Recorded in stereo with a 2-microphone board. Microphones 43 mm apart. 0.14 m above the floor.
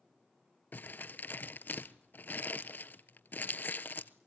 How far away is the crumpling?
About 0.8 m.